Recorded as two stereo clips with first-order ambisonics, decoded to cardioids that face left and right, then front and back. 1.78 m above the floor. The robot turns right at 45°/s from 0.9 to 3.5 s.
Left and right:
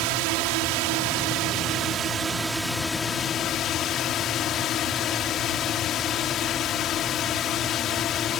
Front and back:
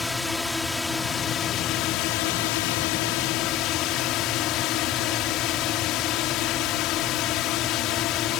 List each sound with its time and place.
0.0 s a drone: 80° right; by 8.4 s 35° left